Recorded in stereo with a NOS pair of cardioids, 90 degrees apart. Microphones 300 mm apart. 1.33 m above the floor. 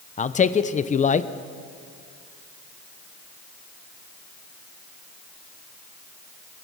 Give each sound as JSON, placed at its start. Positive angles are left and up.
{"t": 0.2, "sound": "a man speaking", "azimuth_deg": 25, "distance_m": 0.6}